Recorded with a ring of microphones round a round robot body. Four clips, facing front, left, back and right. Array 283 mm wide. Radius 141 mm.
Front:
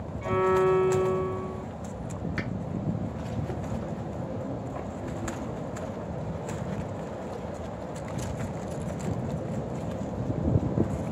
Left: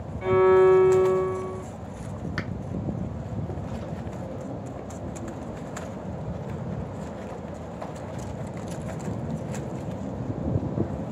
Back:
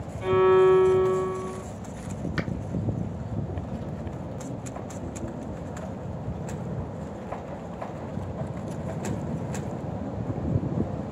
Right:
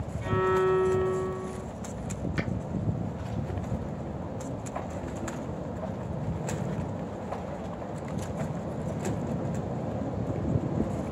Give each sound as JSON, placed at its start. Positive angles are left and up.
{"t": 0.2, "sound": "a violin", "azimuth_deg": 130, "distance_m": 0.8}
{"t": 2.4, "sound": "a finger snap", "azimuth_deg": 145, "distance_m": 0.8}